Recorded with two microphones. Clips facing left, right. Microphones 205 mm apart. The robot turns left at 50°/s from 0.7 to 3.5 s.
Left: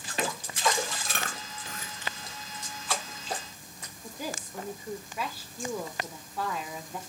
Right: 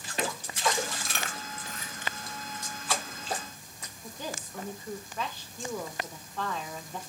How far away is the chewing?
About 1.5 m.